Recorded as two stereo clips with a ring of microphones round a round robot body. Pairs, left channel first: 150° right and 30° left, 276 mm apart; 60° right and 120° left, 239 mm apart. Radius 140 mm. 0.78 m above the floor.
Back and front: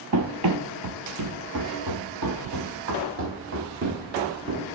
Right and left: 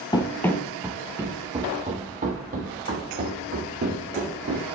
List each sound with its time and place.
0.1 s running footsteps: 10° left, 1.2 m; by 4.7 s 80° left, 3 m